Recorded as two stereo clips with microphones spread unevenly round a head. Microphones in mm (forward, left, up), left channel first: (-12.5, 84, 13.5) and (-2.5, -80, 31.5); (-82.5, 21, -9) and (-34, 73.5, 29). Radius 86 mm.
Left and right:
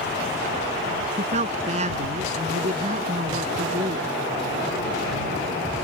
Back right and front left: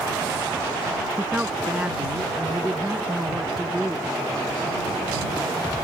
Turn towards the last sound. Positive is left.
turn(degrees=-35)